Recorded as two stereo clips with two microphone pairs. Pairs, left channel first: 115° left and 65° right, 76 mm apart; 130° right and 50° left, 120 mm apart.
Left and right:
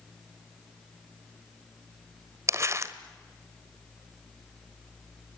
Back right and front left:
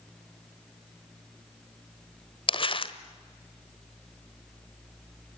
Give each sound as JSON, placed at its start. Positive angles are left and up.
{"t": 2.5, "sound": "crumpling", "azimuth_deg": -105, "distance_m": 1.3}